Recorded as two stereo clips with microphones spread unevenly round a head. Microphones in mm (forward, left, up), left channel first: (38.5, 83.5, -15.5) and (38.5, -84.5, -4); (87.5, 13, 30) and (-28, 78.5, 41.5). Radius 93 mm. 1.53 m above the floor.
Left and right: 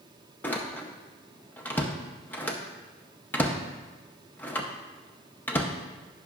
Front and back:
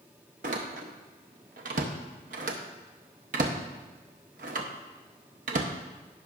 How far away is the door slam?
About 0.7 m.